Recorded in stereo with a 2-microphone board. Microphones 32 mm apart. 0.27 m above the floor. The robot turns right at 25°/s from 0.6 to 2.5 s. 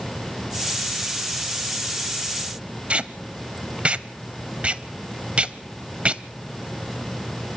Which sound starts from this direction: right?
Tape being pulled, at 2.9 s.